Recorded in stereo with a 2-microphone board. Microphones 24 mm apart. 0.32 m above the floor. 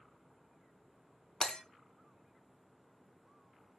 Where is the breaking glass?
50° left (ahead or behind), 0.6 m.